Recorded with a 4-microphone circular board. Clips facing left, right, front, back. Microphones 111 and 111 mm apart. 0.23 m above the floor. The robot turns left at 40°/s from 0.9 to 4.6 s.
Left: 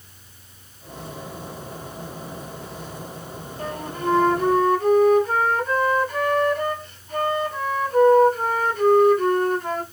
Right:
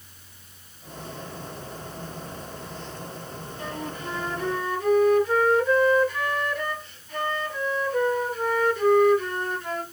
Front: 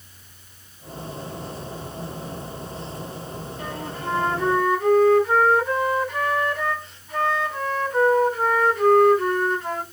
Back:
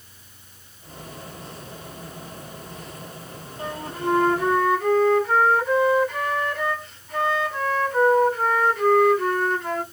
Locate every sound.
3.6 s a flute: 125° left, 1.5 m; by 9.8 s 85° left, 1.5 m